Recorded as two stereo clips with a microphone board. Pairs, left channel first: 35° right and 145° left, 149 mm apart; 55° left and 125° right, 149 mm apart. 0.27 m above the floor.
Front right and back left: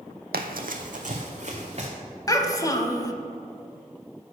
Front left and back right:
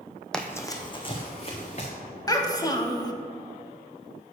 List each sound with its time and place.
0.3 s running footsteps: 140° left, 0.6 m; by 1.9 s 100° left, 1.6 m
2.3 s a child speaking: 10° left, 0.6 m